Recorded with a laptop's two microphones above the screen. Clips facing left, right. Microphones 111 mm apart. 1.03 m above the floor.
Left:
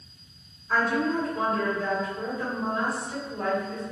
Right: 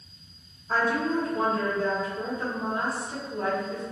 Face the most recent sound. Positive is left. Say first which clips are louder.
# even
turn(degrees=-40)  # may be behind; listen again after turning